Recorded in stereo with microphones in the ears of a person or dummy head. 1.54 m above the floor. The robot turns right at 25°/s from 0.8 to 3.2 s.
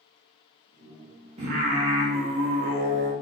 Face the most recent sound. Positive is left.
turn(degrees=-85)